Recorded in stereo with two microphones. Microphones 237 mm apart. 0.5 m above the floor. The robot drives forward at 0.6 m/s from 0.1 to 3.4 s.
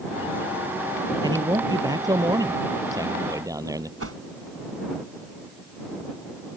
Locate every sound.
1.2 s a man speaking: 15° right (ahead or behind)
4.0 s a whoosh: 75° right (ahead or behind)